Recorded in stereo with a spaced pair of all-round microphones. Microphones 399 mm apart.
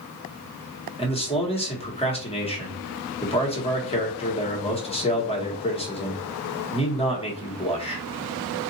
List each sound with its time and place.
1.0 s a man speaking: 15° left (ahead or behind), 1.2 m